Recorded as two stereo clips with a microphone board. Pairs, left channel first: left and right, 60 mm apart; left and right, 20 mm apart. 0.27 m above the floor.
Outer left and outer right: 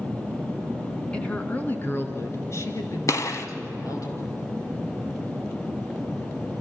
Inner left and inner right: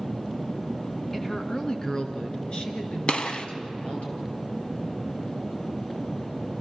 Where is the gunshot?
60° left (ahead or behind), 1.8 m.